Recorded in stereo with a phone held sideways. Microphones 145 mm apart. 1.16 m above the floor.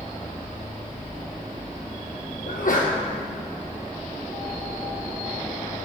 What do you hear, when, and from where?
2.5 s a sneeze: 65° left (ahead or behind), 1.1 m